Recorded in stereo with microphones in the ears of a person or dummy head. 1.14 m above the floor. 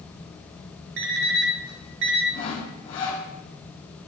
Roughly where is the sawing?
Left.